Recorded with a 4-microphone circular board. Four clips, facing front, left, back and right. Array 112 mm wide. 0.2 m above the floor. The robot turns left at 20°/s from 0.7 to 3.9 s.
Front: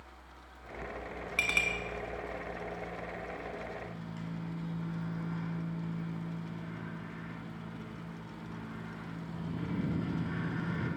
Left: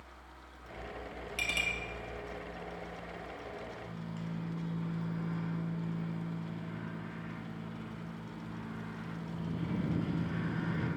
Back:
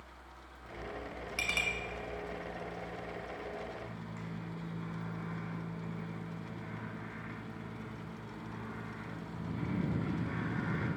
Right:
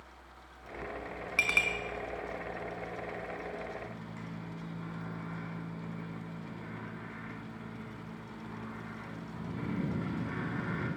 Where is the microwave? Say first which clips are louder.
Left 1 dB, front 2 dB; 120° right, 1.6 m; by 10.9 s 125° right, 1.6 m.